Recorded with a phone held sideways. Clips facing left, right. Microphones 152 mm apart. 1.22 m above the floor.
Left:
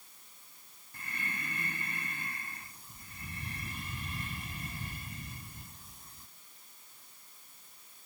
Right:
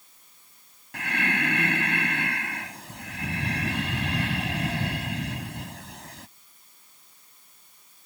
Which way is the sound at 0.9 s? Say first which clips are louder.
Right 15 dB; 85° right.